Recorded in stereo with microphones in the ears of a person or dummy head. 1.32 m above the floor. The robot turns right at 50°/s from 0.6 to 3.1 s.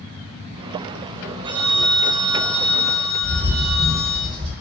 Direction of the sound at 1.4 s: 45° right.